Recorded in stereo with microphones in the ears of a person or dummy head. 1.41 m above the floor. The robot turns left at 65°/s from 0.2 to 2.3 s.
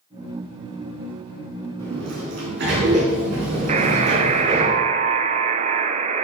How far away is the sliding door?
About 3.5 m.